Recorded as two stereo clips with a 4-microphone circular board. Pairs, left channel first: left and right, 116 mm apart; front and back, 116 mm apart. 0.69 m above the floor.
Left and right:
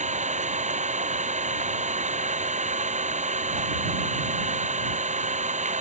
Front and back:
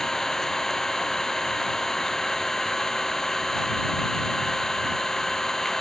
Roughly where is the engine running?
Right.